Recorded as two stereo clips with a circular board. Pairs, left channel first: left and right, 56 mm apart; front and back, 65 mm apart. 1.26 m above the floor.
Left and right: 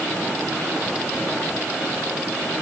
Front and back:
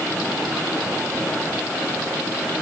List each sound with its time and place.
Only background noise.